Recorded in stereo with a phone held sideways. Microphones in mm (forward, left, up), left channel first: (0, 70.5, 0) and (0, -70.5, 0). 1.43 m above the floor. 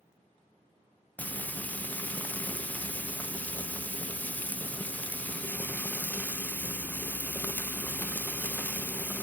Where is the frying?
10° left (ahead or behind), 0.6 m.